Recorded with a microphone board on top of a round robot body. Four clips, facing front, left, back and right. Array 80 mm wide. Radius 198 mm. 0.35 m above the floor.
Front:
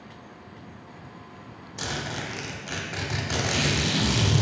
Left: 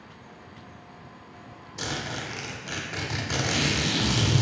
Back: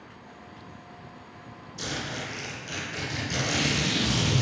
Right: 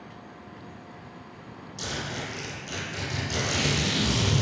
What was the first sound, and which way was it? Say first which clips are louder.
A zipper: left 1 dB, front 2 dB; 40° left.